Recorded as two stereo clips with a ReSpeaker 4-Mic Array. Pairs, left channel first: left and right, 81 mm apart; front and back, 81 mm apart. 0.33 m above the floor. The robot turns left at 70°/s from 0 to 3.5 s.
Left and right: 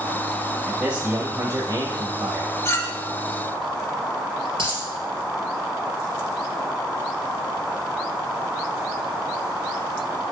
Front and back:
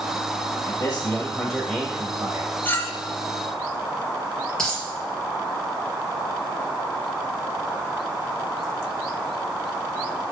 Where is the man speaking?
20° right, 1.4 m; by 2.5 s 150° right, 1.4 m.